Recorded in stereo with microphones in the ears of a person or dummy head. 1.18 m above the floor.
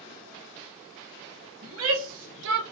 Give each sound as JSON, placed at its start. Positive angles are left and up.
{"t": 1.6, "sound": "a shout", "side_deg": -85, "distance_m": 1.1}